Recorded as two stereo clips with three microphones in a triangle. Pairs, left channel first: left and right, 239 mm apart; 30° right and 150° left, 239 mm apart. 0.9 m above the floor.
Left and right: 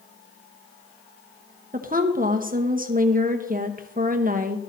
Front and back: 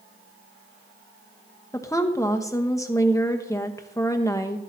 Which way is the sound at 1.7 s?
100° right.